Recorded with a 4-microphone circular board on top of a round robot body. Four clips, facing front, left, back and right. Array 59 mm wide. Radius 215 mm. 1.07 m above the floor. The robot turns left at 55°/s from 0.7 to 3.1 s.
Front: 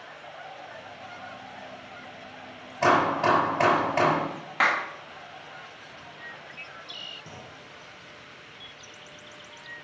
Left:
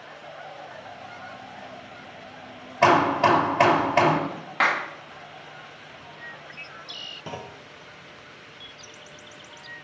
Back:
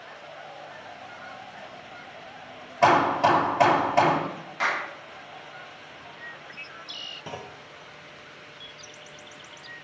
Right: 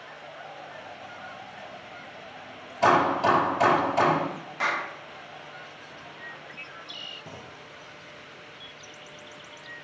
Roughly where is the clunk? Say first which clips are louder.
Left 6 dB, back 5 dB; behind left.